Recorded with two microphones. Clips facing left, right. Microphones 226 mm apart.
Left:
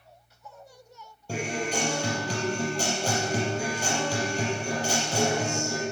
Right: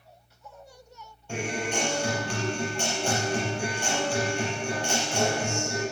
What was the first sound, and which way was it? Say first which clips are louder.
A guitar: even; 35° left (ahead or behind).